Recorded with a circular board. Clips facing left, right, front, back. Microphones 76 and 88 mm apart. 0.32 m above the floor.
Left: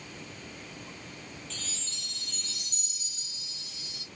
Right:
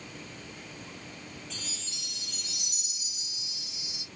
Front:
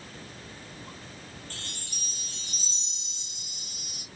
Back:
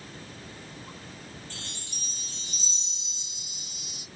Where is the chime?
15° right, 1.3 m.